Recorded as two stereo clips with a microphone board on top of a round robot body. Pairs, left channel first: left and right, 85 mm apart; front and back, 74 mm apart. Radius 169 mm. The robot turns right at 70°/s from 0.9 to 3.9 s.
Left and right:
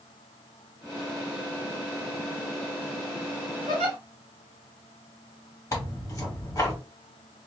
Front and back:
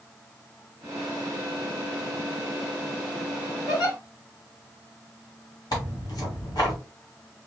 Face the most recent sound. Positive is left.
turn(degrees=35)